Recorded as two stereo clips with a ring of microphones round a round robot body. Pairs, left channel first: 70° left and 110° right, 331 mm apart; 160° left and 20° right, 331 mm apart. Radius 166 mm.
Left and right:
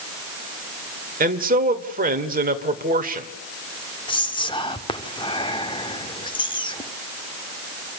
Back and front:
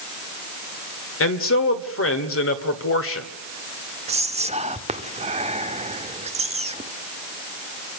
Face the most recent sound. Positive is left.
turn(degrees=15)